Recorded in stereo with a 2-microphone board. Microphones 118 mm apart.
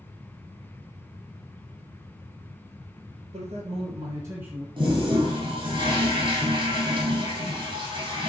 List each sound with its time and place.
3.3 s a man speaking: 60° right (ahead or behind), 2.0 m; by 4.7 s centre (ahead or behind), 1.4 m
4.8 s a toilet flushing: 40° right (ahead or behind), 3.5 m